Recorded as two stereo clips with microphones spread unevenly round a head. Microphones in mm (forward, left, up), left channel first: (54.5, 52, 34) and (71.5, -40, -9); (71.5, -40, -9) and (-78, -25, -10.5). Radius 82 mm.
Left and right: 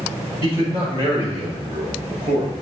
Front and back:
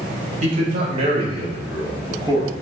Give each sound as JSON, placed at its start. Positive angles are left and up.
{"t": 0.4, "sound": "a man speaking", "azimuth_deg": -145, "distance_m": 3.5}